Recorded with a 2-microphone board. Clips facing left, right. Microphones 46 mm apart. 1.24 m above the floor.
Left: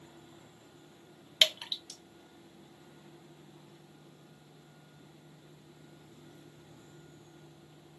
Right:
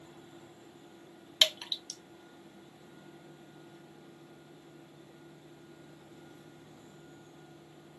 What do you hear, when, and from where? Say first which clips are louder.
1.4 s dripping: left 1 dB; 20° left (ahead or behind), 0.7 m